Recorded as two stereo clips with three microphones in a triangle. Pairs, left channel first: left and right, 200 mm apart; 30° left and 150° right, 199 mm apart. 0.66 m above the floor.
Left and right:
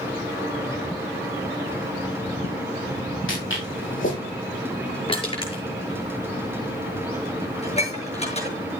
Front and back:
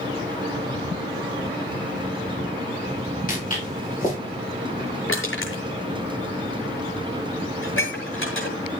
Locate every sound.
3.3 s footsteps: 80° left, 8 m
5.1 s crushing: 25° left, 6.5 m
7.6 s dishes clattering: 35° left, 7 m